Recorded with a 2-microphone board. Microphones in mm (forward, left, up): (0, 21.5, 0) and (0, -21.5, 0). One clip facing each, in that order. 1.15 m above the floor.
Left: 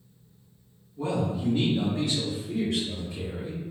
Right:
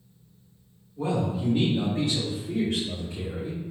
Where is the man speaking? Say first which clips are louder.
Right 1 dB; 20° right (ahead or behind), 1.2 m; by 3.6 s 65° right (ahead or behind), 1.8 m.